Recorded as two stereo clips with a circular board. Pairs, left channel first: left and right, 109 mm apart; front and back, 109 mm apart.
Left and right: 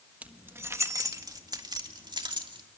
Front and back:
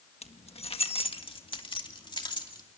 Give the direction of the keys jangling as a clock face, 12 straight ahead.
12 o'clock.